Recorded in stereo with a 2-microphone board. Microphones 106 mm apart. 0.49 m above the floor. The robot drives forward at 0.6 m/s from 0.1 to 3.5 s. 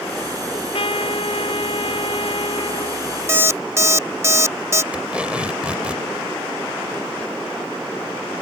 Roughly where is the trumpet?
Left.